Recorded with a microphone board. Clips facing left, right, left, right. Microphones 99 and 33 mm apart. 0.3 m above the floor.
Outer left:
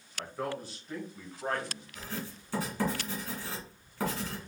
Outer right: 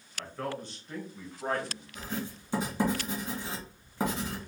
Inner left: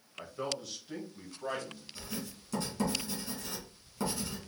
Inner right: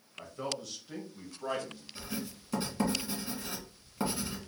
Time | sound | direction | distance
0.2 | a man speaking | 15° left (ahead or behind) | 1.4 m
1.9 | writing | 20° right (ahead or behind) | 2.5 m